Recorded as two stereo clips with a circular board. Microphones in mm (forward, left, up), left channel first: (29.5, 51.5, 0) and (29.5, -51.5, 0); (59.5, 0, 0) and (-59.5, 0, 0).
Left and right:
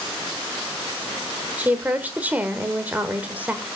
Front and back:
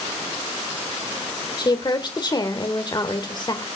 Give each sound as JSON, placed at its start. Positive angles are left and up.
{"t": 1.6, "sound": "a woman speaking", "azimuth_deg": -25, "distance_m": 1.4}